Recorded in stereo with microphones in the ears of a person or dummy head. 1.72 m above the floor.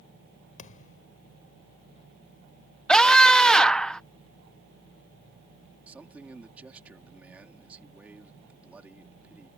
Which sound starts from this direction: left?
A thud, at 0.6 s.